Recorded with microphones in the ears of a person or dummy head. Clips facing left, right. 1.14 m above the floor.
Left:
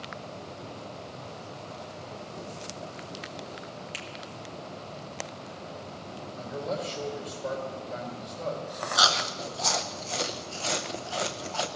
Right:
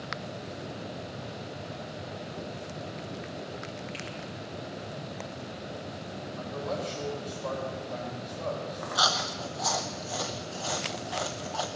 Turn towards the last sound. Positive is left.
turn(degrees=35)  # may be behind; listen again after turning